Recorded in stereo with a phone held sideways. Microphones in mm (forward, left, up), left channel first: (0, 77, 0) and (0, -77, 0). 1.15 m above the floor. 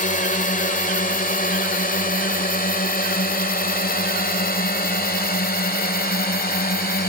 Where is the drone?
60° left (ahead or behind); by 7.1 s 85° left.